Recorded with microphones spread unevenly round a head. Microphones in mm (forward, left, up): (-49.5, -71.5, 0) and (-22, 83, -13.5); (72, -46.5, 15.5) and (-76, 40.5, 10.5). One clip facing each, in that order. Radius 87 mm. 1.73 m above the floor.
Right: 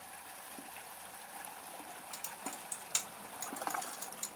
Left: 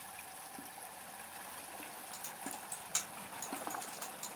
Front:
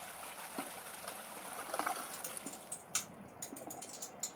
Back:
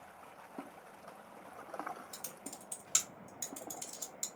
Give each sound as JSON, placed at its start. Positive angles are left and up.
{"t": 2.1, "sound": "typing on a keyboard", "azimuth_deg": -150, "distance_m": 0.9}